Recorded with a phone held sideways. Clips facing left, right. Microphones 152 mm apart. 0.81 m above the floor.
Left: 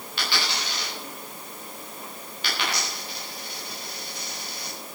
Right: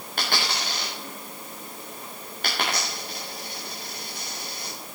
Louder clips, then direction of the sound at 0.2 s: Right 2 dB; 50° right (ahead or behind).